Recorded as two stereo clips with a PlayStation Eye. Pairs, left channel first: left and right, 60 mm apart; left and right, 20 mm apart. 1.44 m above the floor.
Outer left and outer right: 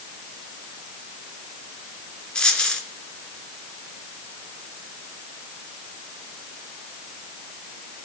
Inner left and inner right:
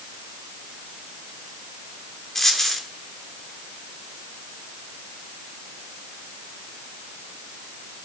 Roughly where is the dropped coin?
Centre.